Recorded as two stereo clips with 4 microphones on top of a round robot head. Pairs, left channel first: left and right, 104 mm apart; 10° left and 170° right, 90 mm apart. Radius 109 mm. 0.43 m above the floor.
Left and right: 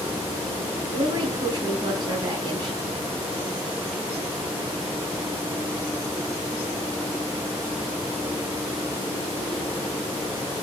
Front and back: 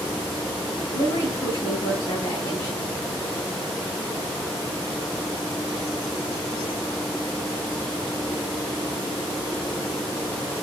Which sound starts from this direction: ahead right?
A woman speaking, at 0.9 s.